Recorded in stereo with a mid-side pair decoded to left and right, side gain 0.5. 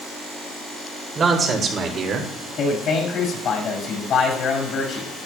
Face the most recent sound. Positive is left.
turn(degrees=60)